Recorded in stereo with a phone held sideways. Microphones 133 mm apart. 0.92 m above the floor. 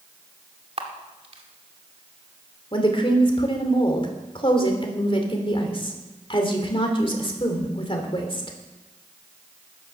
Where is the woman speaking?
40° left (ahead or behind), 3 m.